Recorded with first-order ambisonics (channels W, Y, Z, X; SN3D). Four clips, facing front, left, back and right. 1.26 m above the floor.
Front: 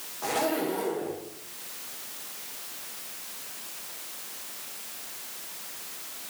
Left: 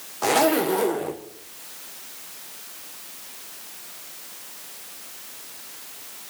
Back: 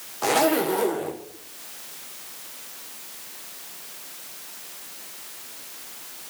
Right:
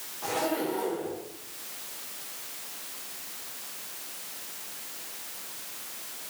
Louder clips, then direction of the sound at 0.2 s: Left 10 dB, back 7 dB; 125° left.